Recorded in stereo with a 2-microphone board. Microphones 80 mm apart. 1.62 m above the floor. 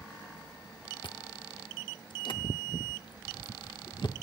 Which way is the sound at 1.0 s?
65° left (ahead or behind).